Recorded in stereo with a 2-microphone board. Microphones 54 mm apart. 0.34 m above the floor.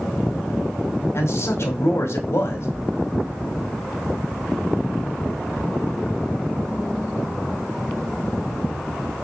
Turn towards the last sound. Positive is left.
turn(degrees=55)  # may be behind; listen again after turning